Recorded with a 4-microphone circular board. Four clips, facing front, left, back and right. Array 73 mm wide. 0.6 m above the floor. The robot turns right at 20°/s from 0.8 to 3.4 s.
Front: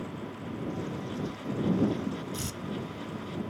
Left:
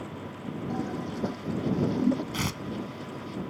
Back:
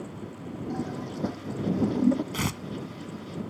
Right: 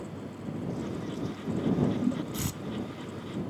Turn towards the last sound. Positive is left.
turn(degrees=165)